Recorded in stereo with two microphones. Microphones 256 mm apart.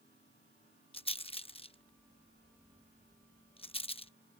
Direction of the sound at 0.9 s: 20° left (ahead or behind).